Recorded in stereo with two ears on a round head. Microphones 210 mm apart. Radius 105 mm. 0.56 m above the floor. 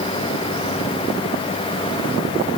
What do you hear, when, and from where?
Only background noise.